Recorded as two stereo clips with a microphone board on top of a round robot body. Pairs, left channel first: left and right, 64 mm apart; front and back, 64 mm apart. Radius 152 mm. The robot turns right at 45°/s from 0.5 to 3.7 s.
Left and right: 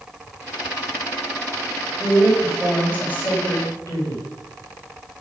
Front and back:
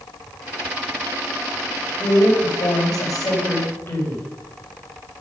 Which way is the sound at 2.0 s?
25° right.